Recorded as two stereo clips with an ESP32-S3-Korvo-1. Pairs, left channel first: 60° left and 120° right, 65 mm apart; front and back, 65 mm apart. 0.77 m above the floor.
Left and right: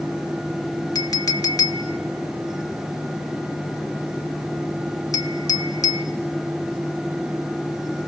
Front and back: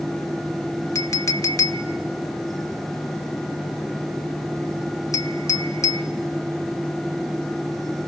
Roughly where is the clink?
Ahead left.